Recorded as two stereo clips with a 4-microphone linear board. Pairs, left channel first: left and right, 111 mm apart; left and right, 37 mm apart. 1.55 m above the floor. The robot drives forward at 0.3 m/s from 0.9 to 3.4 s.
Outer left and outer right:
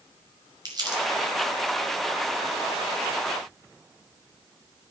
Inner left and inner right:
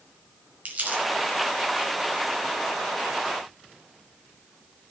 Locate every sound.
0.7 s crumpling: 40° right (ahead or behind), 5.5 m